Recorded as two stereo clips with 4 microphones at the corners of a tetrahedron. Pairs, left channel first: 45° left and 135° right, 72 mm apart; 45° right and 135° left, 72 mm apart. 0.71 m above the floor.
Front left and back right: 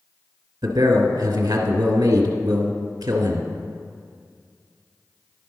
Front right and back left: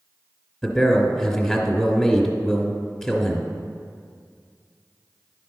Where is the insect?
No insect in this recording.